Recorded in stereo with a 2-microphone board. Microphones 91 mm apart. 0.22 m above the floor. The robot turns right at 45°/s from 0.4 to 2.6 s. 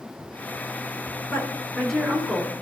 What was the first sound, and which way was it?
A woman speaking, 150° left.